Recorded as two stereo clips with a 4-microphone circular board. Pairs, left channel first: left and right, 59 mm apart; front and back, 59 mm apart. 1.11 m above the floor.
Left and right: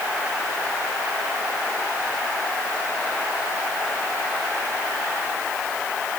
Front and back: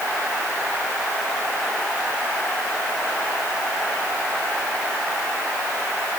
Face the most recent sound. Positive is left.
No sound to turn to.